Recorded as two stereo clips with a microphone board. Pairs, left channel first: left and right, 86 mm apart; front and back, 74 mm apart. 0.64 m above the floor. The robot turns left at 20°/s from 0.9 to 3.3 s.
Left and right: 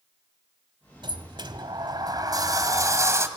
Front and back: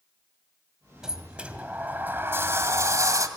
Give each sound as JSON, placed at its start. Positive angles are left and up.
{"t": 1.0, "sound": "a sliding door", "azimuth_deg": -100, "distance_m": 2.0}